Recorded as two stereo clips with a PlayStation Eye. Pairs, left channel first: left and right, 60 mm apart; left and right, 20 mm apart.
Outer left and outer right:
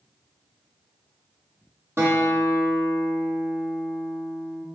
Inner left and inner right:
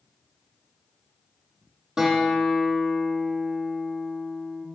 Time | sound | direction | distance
2.0 | a guitar | 45° right (ahead or behind) | 3 m